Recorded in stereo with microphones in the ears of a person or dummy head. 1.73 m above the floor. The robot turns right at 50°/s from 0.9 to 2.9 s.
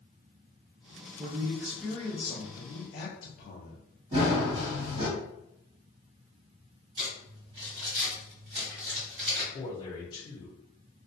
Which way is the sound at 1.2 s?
35° right.